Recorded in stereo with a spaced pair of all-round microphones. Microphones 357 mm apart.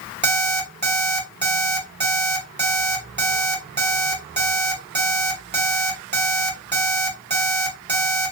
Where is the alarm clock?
30° right (ahead or behind), 1.6 m.